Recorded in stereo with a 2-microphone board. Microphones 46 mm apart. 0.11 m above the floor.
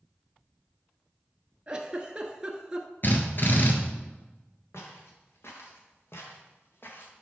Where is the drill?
45° left (ahead or behind), 1.6 m.